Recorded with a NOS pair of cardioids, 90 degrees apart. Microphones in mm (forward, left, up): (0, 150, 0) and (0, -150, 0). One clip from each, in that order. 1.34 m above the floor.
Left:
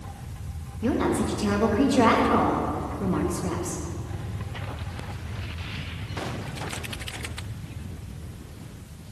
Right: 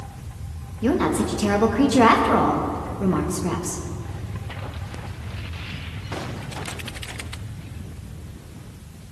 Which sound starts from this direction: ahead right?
A woman speaking, at 0.8 s.